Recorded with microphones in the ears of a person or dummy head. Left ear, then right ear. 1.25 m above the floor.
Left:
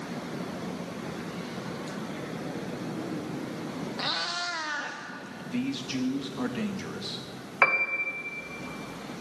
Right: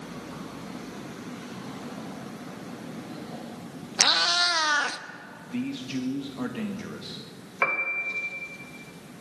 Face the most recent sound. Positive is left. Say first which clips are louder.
# left 2 dB
turn(degrees=15)  # may be behind; listen again after turning